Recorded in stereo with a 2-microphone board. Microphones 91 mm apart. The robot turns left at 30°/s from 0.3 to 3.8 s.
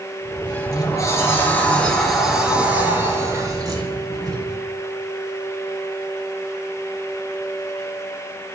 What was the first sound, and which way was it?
A sliding door, 55° left.